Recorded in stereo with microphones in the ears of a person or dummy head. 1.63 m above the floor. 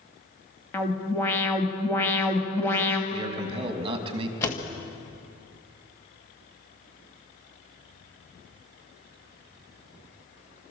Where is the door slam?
15° left (ahead or behind), 1.7 m.